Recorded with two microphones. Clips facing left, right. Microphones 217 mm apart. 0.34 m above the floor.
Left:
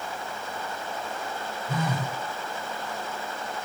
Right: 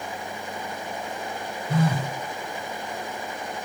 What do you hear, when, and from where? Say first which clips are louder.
1.7 s a phone buzzing: right 5 dB; 35° right (ahead or behind), 1.2 m